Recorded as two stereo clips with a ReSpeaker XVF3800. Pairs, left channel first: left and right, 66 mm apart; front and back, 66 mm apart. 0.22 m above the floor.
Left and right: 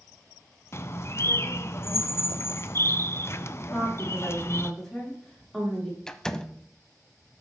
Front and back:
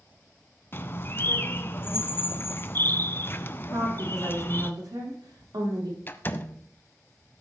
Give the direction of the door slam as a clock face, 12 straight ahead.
11 o'clock.